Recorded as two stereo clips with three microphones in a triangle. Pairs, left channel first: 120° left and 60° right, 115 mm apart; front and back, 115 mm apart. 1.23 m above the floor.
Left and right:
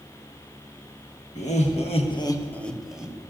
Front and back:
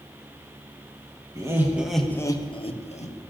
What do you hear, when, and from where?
1.4 s laughter: 120° left, 1.6 m; by 3.2 s 20° left, 1.7 m